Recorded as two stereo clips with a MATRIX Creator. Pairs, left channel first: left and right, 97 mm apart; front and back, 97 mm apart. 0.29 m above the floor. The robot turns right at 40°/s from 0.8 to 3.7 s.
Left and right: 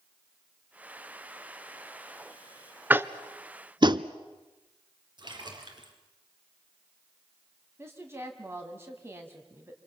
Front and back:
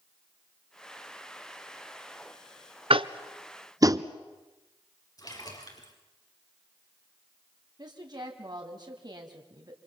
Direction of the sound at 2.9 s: 160° right.